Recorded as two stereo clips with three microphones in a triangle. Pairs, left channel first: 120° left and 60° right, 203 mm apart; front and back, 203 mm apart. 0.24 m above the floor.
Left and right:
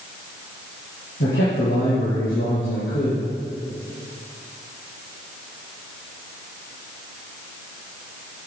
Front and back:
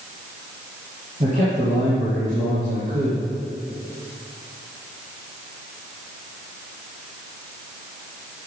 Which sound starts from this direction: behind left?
A man speaking, at 1.2 s.